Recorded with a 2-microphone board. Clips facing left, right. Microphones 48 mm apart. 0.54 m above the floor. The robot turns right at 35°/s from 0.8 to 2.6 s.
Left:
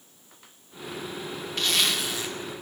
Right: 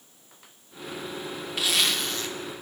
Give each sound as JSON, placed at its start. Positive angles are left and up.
{"t": 1.6, "sound": "a zipper", "side_deg": -10, "distance_m": 0.8}